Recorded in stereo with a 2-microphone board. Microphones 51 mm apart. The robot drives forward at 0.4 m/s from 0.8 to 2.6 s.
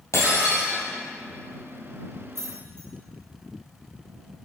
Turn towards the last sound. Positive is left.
turn(degrees=-75)  # may be behind; listen again after turning